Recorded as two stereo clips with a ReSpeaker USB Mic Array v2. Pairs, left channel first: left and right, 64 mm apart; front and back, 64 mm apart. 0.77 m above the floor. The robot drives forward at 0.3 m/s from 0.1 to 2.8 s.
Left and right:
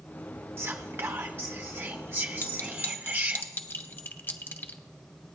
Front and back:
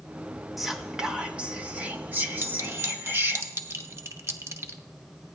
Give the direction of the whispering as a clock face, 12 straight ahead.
3 o'clock.